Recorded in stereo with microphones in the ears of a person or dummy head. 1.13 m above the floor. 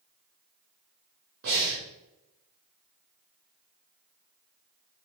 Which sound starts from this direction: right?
Breathing, at 1.4 s.